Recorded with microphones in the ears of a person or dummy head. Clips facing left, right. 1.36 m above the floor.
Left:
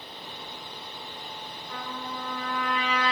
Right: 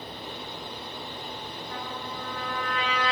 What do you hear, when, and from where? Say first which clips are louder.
1.7 s a trumpet: left 2 dB; 65° right (ahead or behind), 1.7 m